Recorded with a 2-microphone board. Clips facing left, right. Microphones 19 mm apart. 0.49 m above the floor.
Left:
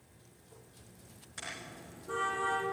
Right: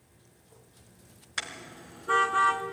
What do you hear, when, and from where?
1.4 s a car horn: 60° right (ahead or behind), 3.5 m; by 2.6 s 70° right (ahead or behind), 2.5 m